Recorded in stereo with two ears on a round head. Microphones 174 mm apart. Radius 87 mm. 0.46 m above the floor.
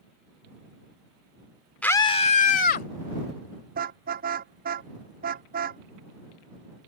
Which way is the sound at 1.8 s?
5° left (ahead or behind).